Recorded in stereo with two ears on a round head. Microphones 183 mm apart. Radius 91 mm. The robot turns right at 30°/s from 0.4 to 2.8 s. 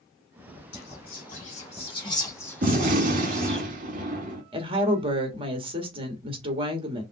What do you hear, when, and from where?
0.7 s whispering: 55° left (ahead or behind), 2 m; by 3.6 s 5° left (ahead or behind), 2 m
2.6 s a gunshot: 40° right (ahead or behind), 1.2 m
4.5 s a woman speaking: 25° right (ahead or behind), 1.3 m